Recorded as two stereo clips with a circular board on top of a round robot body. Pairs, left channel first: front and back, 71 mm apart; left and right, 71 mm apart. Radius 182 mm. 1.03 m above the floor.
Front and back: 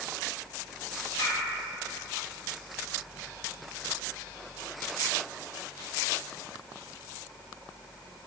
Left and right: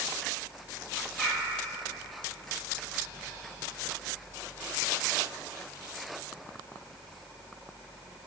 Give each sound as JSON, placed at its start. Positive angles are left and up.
{"t": 1.2, "sound": "a bird", "azimuth_deg": 20, "distance_m": 5.5}